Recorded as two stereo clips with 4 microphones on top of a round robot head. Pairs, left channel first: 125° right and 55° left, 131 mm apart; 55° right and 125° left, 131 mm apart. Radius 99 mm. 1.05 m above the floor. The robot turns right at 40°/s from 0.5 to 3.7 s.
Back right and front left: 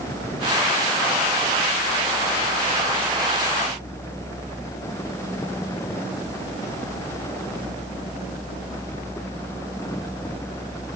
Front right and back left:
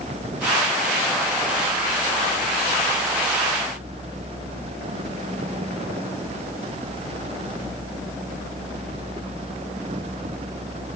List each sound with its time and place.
Only background noise.